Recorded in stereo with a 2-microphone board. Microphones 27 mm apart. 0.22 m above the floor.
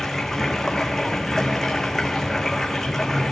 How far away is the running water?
About 1.7 m.